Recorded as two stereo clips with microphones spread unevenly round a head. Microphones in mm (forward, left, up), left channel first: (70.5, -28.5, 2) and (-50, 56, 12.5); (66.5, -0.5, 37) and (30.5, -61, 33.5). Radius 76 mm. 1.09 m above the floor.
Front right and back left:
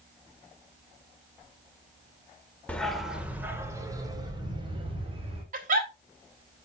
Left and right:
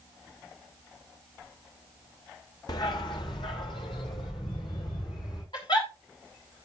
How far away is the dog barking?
About 1.5 m.